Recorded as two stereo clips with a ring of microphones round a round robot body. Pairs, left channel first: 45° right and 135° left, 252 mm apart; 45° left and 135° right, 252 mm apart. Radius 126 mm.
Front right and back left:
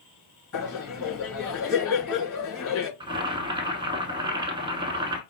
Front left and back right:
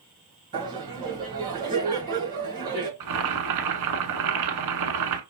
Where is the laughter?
80° right, 3.5 m.